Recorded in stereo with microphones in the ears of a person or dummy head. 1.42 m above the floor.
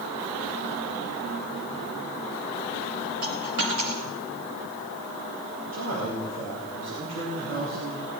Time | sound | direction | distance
3.2 | a dropped coin | 60° right (ahead or behind) | 2.5 m
5.7 | a man speaking | 75° right (ahead or behind) | 3 m